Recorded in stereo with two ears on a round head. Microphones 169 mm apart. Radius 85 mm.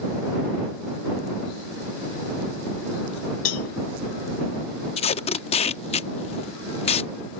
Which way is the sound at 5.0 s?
35° left (ahead or behind).